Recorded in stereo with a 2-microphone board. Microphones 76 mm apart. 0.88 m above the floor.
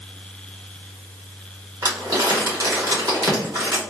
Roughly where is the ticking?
I don't hear ticking.